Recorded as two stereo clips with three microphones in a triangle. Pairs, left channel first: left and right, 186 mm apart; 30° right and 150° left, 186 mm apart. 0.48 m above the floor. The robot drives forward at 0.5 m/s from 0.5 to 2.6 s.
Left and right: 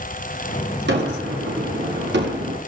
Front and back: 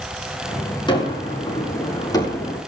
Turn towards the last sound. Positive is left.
turn(degrees=-105)